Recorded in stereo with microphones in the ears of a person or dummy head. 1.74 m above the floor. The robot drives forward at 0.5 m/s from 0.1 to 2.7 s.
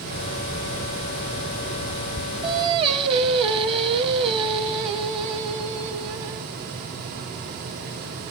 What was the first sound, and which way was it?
Singing, 25° right (ahead or behind).